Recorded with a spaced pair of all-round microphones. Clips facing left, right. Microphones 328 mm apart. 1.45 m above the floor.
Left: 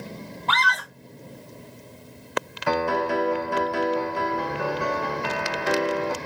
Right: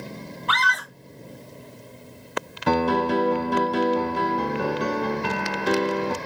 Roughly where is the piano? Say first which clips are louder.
Right 4 dB; right.